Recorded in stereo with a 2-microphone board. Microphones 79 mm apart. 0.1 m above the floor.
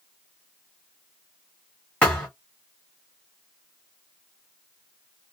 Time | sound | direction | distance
2.0 | a thud | 15° left (ahead or behind) | 1.8 m